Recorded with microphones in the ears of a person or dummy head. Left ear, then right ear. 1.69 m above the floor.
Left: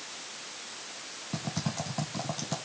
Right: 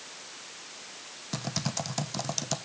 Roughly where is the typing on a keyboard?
Right.